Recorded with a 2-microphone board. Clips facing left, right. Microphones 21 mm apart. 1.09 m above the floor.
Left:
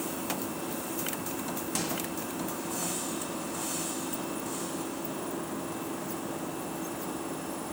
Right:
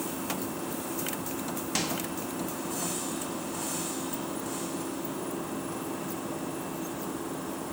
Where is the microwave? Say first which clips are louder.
Right 3 dB; 20° right (ahead or behind), 1.8 m.